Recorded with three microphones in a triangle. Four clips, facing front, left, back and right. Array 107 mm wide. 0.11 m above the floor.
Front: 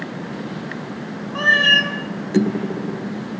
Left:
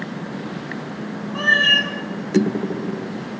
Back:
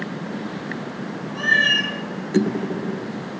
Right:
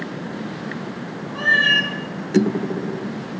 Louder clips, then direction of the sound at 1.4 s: Even, front 4 dB; 25° left.